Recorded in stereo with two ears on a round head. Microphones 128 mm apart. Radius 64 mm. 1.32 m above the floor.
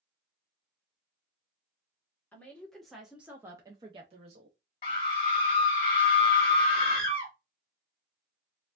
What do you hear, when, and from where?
2.3 s a woman speaking: 10° left (ahead or behind), 1.2 m; by 4.6 s 55° right (ahead or behind), 0.8 m
4.8 s a scream: 40° left (ahead or behind), 1.0 m